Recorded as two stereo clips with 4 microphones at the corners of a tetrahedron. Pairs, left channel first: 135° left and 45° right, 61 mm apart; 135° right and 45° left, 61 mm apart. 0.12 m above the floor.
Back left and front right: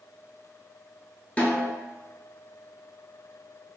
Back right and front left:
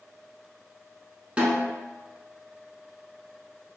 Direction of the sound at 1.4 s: 95° left.